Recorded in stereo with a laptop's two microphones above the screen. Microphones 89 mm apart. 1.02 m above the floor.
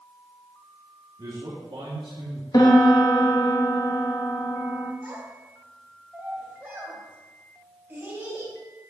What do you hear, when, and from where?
1.2 s a man speaking: 55° right (ahead or behind), 2.5 m; by 2.4 s 65° right (ahead or behind), 1.8 m
2.5 s a piano: 50° left (ahead or behind), 1.2 m
5.0 s a child speaking: 20° right (ahead or behind), 3 m